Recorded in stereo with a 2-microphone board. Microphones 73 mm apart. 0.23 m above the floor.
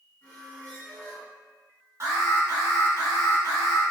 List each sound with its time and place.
0.2 s a squeak: 25° left (ahead or behind), 1.2 m
2.0 s an alarm: 45° right (ahead or behind), 1.0 m